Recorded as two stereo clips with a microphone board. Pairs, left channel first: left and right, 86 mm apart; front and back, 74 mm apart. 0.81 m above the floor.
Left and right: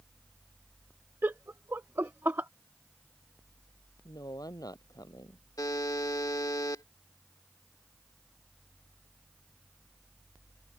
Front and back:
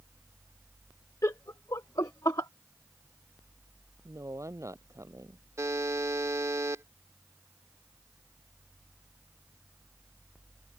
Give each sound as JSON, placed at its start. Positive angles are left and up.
{"t": 1.2, "sound": "laughter", "azimuth_deg": -30}
{"t": 4.0, "sound": "a woman speaking", "azimuth_deg": 135}
{"t": 5.6, "sound": "a buzzer", "azimuth_deg": 135}